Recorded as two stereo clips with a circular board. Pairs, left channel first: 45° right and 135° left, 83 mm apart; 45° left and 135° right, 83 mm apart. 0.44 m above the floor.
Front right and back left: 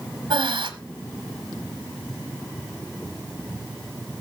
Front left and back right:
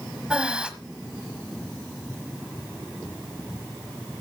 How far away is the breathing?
About 1.3 m.